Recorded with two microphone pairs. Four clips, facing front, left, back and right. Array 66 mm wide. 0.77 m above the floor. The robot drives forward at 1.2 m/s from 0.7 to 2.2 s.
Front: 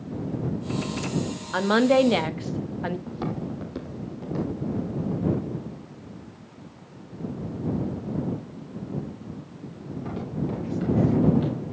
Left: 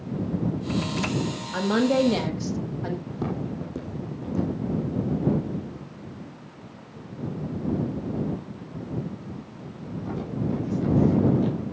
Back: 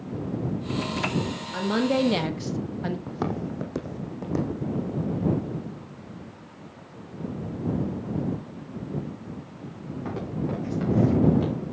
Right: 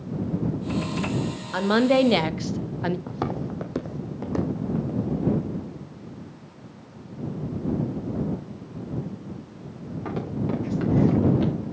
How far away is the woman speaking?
About 1.5 m.